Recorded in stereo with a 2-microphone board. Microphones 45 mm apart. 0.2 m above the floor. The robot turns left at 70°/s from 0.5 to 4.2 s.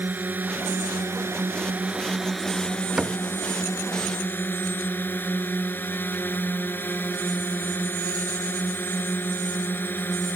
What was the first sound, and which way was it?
A drone, 50° right.